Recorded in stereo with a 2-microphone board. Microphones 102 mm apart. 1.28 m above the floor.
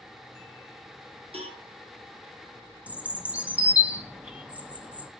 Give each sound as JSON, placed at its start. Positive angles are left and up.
{"t": 1.3, "sound": "a cowbell", "side_deg": -70, "distance_m": 1.6}
{"t": 2.9, "sound": "a bird", "side_deg": -10, "distance_m": 0.6}